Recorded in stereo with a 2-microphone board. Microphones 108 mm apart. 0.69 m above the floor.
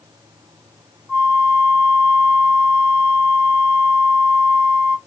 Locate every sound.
1.1 s a flute: 15° right (ahead or behind), 0.7 m